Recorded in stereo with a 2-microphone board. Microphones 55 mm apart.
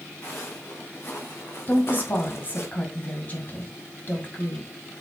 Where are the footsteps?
40° left (ahead or behind), 3.5 m; by 2.7 s 55° left (ahead or behind), 1.8 m.